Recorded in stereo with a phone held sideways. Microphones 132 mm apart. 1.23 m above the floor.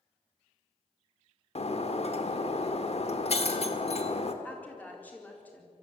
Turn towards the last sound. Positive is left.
turn(degrees=15)  # may be behind; listen again after turning